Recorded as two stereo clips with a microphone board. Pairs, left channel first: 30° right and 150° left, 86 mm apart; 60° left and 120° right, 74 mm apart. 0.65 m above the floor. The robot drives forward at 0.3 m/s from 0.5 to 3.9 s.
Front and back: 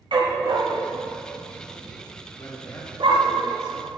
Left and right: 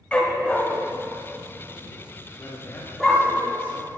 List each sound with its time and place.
0.1 s a dog barking: 135° left, 1.5 m; by 3.4 s 150° left, 2 m
2.4 s a man speaking: 10° left, 1.7 m; by 3.9 s 15° left, 1.3 m